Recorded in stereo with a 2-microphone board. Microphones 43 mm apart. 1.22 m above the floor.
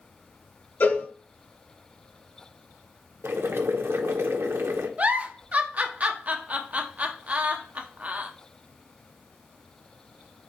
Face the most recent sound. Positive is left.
turn(degrees=-40)  # may be behind; listen again after turning